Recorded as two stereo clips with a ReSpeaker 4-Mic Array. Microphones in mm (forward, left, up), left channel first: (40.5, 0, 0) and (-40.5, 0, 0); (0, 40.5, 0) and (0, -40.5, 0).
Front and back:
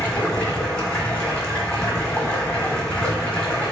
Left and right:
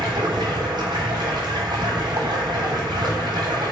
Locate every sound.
0.0 s running water: 75° right, 1.1 m